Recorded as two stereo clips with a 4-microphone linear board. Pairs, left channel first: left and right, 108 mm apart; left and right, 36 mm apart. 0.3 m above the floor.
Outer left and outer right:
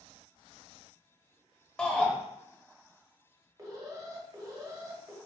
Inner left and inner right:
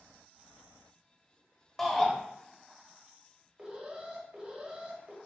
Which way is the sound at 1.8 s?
10° left (ahead or behind).